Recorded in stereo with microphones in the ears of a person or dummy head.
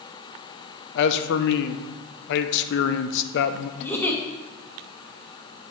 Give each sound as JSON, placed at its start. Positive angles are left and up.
{"t": 0.9, "sound": "a man speaking", "side_deg": 70, "distance_m": 0.6}
{"t": 3.8, "sound": "a giggle", "side_deg": 5, "distance_m": 0.9}